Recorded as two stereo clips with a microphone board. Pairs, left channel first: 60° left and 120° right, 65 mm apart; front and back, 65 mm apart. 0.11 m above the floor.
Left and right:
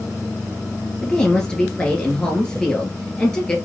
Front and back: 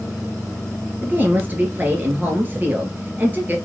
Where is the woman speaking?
135° left, 1.5 m.